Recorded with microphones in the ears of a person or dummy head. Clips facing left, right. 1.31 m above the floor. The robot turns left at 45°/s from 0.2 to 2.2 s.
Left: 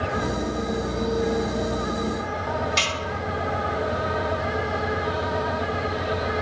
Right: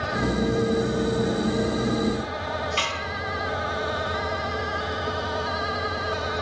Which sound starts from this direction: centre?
A snare drum, at 2.8 s.